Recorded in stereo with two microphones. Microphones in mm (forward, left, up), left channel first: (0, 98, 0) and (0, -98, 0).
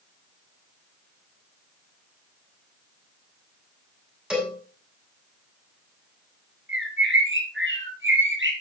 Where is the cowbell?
5° right (ahead or behind), 6.5 m.